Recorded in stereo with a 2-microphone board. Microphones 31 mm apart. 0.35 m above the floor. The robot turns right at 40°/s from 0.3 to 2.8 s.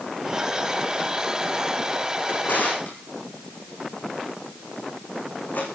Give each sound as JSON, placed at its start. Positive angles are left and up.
{"t": 2.3, "sound": "a drawer", "side_deg": 80, "distance_m": 6.5}